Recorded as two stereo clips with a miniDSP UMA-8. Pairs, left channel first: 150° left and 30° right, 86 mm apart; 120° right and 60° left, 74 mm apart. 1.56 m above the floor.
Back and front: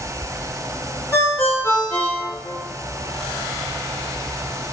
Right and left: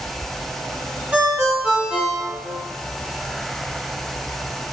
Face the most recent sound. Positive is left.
turn(degrees=120)